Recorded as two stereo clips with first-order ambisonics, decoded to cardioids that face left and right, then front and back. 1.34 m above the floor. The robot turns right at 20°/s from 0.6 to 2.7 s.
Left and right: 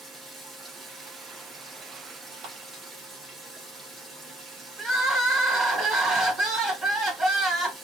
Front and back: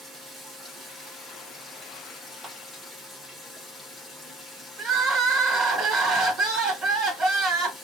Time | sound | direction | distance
0.0 | running water | 135° right | 1.0 m
2.4 | a clap | 105° right | 1.6 m
4.8 | crying | 145° right | 1.5 m